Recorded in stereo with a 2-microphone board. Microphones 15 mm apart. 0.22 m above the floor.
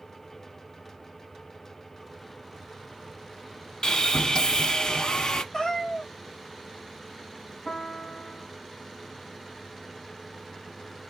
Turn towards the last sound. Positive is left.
turn(degrees=90)